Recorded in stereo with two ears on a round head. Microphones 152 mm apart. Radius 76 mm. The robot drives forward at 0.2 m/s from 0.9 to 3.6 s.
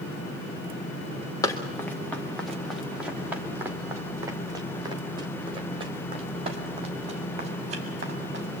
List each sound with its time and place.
1.4 s running footsteps: 20° left (ahead or behind), 2.5 m; by 8.6 s 45° right (ahead or behind), 6.5 m